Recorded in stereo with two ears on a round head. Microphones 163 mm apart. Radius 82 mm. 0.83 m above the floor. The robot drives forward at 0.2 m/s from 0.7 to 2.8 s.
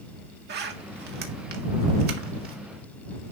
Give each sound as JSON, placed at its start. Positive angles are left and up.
{"t": 0.5, "sound": "a zipper", "side_deg": -60, "distance_m": 1.8}